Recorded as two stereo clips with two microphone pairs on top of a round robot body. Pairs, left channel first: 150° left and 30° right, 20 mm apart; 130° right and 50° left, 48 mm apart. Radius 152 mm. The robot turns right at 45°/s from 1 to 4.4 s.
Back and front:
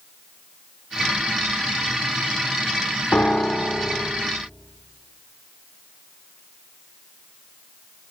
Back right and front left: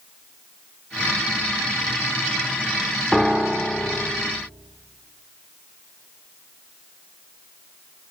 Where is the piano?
130° left, 1.0 m; by 4.1 s 175° left, 1.0 m.